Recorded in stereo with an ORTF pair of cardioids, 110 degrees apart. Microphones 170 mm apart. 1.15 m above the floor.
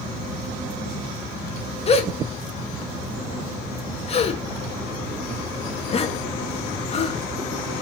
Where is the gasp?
35° left, 1.2 m.